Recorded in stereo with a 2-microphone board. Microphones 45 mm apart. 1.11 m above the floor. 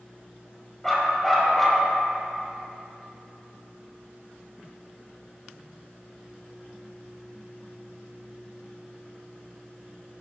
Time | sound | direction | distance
0.8 | a dog barking | 5° left (ahead or behind) | 2.5 m